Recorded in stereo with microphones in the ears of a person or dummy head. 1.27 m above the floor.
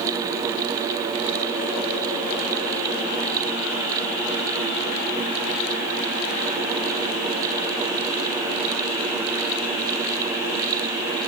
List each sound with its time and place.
Only background noise.